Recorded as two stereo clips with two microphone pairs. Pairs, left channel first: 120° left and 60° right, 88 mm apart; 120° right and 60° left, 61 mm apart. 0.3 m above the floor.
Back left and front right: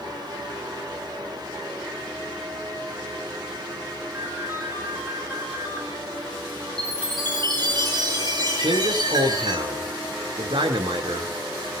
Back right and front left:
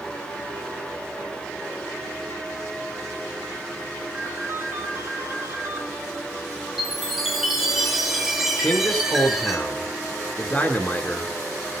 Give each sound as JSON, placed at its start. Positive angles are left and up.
{"t": 4.1, "sound": "a ringtone", "azimuth_deg": 5, "distance_m": 3.0}
{"t": 6.8, "sound": "a chime", "azimuth_deg": -25, "distance_m": 6.0}
{"t": 8.6, "sound": "a man speaking", "azimuth_deg": -60, "distance_m": 4.0}